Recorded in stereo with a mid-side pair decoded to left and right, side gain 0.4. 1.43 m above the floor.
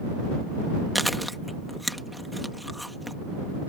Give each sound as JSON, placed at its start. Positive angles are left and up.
{"t": 0.9, "sound": "chewing", "azimuth_deg": 0}